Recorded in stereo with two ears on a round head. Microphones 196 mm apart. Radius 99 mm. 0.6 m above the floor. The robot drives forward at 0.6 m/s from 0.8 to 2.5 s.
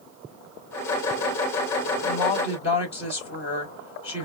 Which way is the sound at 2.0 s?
30° left (ahead or behind).